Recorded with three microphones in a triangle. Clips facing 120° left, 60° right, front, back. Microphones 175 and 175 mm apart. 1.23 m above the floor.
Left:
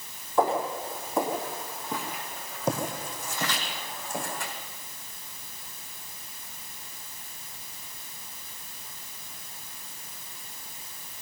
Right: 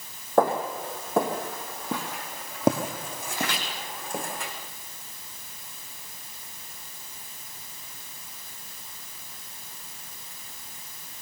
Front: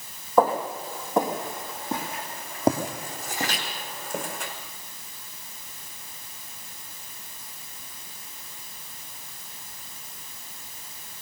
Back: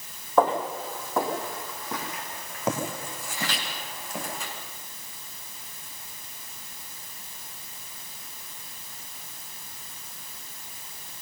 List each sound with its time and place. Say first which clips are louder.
0.4 s footsteps: right 2 dB, front 1 dB; 80° right, 3 m; by 4.5 s 35° right, 4 m